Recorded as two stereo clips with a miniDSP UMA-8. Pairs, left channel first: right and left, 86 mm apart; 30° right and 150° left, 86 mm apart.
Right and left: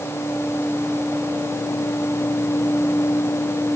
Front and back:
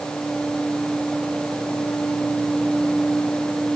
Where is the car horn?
I don't hear a car horn.